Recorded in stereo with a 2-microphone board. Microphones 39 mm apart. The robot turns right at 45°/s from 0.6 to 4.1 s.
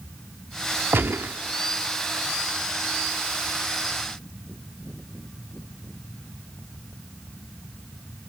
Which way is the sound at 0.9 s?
70° right (ahead or behind).